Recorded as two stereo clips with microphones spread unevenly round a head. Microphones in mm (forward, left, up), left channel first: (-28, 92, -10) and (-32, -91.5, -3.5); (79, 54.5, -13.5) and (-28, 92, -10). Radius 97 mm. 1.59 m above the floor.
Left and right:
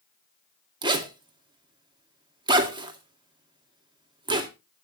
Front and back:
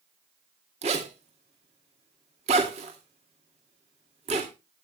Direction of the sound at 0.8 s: 155° right.